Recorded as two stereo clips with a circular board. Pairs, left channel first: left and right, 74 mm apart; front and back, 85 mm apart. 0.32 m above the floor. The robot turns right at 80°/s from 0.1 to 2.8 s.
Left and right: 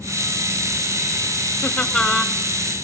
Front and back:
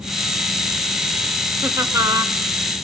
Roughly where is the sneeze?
No sneeze in this recording.